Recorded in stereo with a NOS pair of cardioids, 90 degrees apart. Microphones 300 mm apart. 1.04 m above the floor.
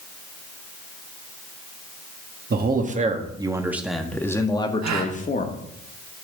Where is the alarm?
I don't hear an alarm.